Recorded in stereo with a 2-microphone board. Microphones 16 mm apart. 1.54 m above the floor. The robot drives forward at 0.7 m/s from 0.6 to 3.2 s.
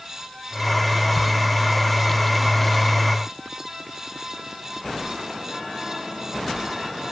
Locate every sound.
Only background noise.